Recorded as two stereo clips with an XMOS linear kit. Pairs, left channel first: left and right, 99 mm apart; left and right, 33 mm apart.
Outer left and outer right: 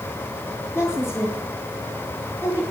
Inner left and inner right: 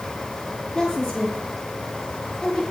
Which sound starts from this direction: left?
A woman speaking, at 0.8 s.